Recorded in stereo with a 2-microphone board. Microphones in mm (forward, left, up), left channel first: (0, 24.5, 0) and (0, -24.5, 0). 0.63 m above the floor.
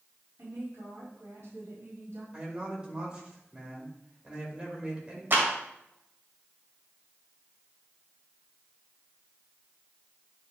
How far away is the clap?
About 2.5 m.